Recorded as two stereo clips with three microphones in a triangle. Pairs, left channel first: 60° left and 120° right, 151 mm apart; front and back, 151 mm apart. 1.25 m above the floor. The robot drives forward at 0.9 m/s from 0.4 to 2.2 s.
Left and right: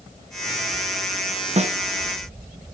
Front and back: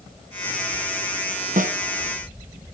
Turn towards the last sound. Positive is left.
turn(degrees=-165)